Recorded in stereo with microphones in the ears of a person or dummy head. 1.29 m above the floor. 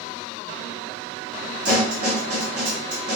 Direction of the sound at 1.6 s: 50° right (ahead or behind).